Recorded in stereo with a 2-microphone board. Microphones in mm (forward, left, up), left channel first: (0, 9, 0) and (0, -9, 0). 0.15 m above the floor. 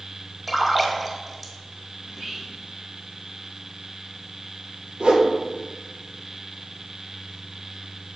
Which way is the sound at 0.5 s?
Centre (ahead or behind).